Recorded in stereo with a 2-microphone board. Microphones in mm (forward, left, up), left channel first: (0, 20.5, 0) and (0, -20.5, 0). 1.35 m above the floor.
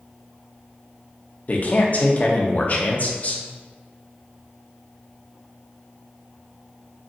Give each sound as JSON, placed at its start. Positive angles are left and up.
{"t": 1.5, "sound": "a man speaking", "side_deg": 35, "distance_m": 0.7}